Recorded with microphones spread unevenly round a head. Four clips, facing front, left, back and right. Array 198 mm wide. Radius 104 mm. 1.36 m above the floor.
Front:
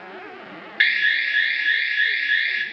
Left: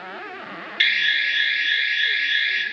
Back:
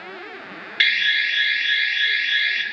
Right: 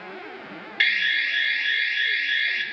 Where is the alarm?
160° right, 4 m.